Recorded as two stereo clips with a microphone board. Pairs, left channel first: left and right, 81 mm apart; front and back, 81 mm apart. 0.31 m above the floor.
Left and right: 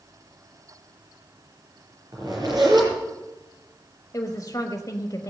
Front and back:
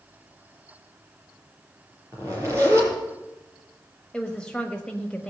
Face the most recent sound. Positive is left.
turn(degrees=75)